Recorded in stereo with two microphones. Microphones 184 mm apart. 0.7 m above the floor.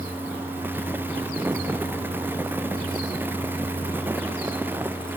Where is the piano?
I don't hear a piano.